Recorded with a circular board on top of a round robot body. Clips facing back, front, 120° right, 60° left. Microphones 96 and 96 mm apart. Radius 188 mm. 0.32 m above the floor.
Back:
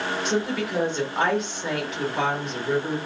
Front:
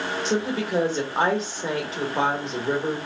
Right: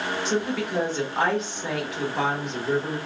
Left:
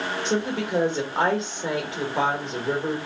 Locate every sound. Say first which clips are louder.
0.2 s a woman speaking: front 1 dB, left 1 dB; 25° left, 1.5 m